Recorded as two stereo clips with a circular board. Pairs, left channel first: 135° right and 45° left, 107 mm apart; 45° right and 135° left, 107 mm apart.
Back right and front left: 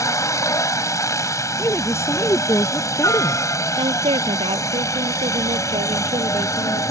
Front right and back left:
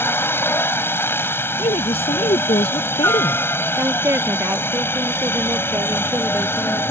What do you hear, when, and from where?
0.0 s a helicopter: 100° right
1.6 s a woman speaking: 70° right
3.8 s a woman speaking: 65° left